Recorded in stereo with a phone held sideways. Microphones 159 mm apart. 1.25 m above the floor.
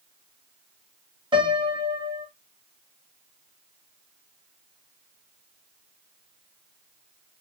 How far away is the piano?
About 0.9 m.